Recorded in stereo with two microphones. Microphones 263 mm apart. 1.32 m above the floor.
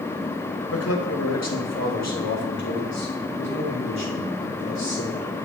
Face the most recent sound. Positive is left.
turn(degrees=80)